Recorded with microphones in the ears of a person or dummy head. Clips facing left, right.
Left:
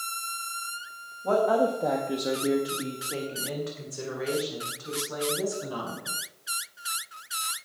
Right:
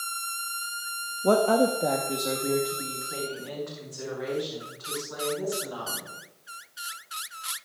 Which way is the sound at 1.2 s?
60° right (ahead or behind).